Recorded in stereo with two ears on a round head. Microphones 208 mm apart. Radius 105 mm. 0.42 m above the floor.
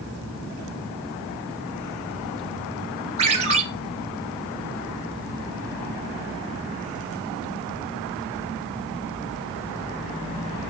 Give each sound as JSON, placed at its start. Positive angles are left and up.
{"t": 3.2, "sound": "a ringtone", "side_deg": -30, "distance_m": 4.0}